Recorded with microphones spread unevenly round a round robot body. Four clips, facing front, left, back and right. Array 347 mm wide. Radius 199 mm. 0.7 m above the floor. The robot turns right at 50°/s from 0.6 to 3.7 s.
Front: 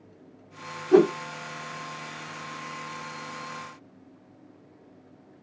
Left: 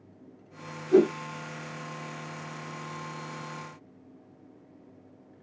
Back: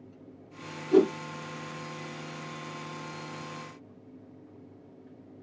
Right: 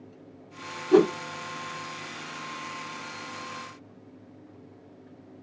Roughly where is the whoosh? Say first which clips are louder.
Right 1 dB, front 4 dB; ahead right.